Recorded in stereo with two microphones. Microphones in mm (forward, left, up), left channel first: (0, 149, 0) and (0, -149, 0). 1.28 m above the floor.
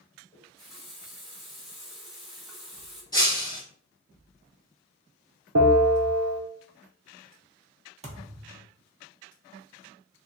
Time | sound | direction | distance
0.3 | a running tap | centre (ahead or behind) | 1.4 m
3.1 | breaking glass | 15° left (ahead or behind) | 1.4 m
5.5 | a bell | 75° right (ahead or behind) | 0.7 m
8.0 | a thud | 25° right (ahead or behind) | 0.8 m